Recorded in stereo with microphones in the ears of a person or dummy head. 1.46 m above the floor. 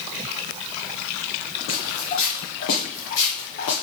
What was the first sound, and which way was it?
Footsteps, 50° left (ahead or behind).